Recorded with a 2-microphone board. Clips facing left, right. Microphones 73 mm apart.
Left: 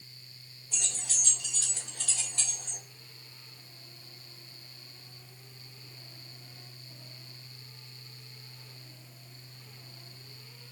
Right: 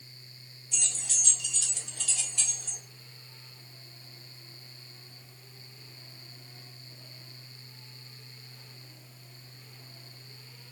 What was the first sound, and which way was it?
Keys jangling, 45° left (ahead or behind).